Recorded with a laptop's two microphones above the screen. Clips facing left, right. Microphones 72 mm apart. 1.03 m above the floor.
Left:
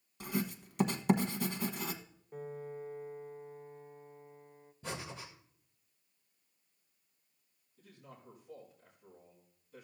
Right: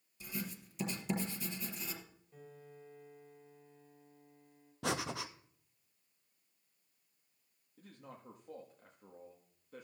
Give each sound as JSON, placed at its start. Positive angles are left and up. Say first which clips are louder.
{"t": 0.2, "sound": "writing", "louder": "left 8 dB", "side_deg": 60, "distance_m": 1.3}
{"t": 2.3, "sound": "a piano", "louder": "left 12 dB", "side_deg": 50, "distance_m": 1.2}
{"t": 4.8, "sound": "breathing", "louder": "right 6 dB", "side_deg": -80, "distance_m": 0.7}
{"t": 7.8, "sound": "a man speaking", "louder": "right 2 dB", "side_deg": -60, "distance_m": 1.7}